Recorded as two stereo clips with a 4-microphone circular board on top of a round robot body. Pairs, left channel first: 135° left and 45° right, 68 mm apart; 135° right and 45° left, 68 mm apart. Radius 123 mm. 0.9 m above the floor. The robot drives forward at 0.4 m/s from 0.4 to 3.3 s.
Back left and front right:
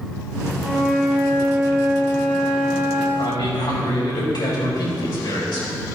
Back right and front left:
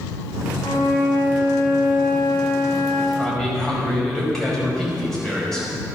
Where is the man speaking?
145° left, 5 m.